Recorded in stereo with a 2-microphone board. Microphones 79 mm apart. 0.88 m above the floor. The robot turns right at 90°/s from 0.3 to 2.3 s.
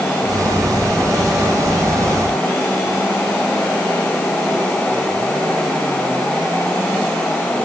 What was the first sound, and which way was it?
Only background noise.